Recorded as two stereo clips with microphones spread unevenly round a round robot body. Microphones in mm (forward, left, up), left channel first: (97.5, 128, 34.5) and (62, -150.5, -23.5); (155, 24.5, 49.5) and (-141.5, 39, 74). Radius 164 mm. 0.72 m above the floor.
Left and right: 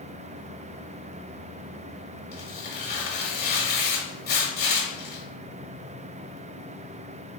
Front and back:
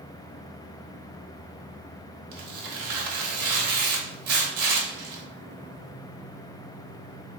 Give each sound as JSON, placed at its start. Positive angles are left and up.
{"t": 2.3, "sound": "tearing paper", "azimuth_deg": 140, "distance_m": 1.0}